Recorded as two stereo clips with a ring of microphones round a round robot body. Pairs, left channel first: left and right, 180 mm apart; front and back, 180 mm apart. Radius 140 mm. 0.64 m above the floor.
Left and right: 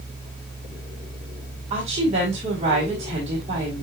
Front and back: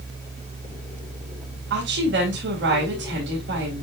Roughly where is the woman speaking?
Behind right.